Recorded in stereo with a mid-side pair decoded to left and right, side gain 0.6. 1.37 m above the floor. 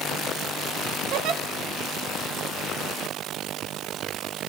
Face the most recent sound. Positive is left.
turn(degrees=-65)